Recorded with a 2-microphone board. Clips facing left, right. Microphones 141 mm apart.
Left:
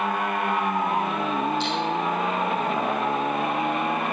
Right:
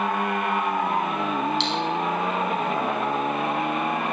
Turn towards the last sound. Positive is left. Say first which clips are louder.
# even
turn(degrees=-80)